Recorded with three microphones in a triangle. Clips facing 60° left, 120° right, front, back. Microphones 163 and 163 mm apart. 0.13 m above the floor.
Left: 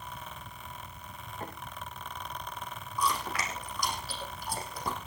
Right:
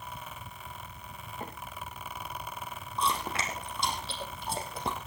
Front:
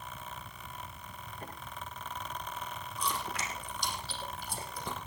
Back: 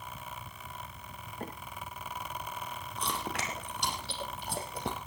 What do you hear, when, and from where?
1.4 s a microwave: 165° left, 9 m
3.0 s chewing: straight behind, 3.5 m